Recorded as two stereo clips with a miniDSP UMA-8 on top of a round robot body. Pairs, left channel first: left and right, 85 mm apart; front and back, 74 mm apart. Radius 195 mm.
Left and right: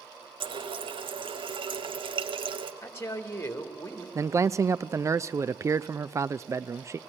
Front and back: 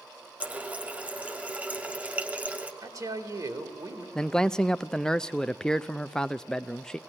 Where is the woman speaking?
150° left, 2.5 m.